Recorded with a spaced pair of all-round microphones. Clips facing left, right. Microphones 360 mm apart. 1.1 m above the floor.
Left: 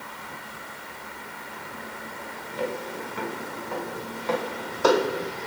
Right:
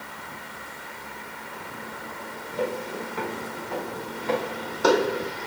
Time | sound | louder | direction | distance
2.6 | footsteps | right 2 dB | 60° right (ahead or behind) | 1.9 m